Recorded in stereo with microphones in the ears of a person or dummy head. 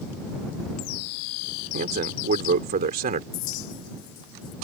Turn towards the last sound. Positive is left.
turn(degrees=70)  # may be behind; listen again after turning